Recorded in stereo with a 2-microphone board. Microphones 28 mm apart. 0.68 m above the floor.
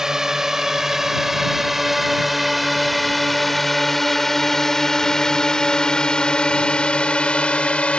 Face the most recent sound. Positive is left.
turn(degrees=50)  # may be behind; listen again after turning